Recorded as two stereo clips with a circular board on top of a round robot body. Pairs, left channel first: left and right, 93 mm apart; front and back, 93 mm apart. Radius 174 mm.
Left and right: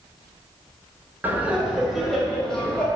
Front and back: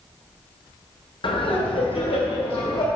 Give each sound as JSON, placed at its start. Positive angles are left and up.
{"t": 1.2, "sound": "laughter", "azimuth_deg": -20, "distance_m": 1.9}